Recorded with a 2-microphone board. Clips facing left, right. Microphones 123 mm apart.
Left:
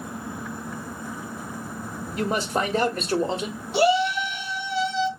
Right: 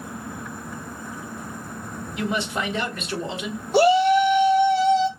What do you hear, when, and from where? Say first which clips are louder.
2.2 s a man speaking: left 2 dB; 40° left (ahead or behind), 1.4 m
3.7 s a shout: right 5 dB; 45° right (ahead or behind), 2 m